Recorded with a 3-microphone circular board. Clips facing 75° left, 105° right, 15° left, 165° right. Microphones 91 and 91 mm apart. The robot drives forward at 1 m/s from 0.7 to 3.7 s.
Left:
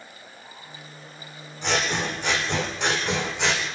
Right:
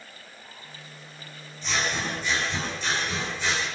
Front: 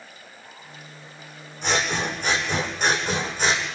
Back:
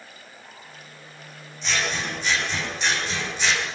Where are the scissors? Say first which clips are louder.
Left 3 dB, front 3 dB; 50° left, 9 m; by 3.7 s 65° left, 8 m.